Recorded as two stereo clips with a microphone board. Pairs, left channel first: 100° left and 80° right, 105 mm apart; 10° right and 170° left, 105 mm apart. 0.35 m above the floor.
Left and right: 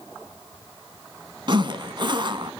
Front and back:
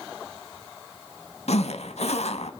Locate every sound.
1.5 s a zipper: 30° right, 0.5 m